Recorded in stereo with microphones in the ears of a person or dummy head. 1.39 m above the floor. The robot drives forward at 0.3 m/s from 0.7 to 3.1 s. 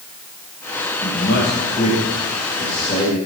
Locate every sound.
1.0 s a man speaking: 60° left (ahead or behind), 2 m; by 3.2 s 45° left (ahead or behind), 2.5 m